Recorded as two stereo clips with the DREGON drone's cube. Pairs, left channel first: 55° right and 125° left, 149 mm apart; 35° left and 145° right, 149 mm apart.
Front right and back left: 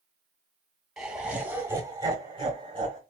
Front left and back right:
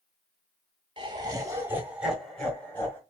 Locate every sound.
1.0 s laughter: 150° right, 1.1 m; by 3.0 s 100° left, 1.2 m